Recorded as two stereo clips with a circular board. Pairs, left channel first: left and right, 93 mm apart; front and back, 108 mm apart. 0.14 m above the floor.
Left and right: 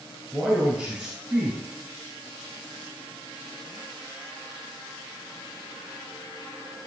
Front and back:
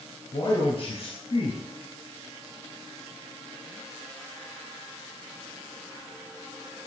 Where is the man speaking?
5° right, 2 m.